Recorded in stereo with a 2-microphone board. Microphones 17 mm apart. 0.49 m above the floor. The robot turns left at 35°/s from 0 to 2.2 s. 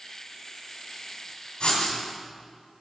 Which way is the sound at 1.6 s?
70° left (ahead or behind).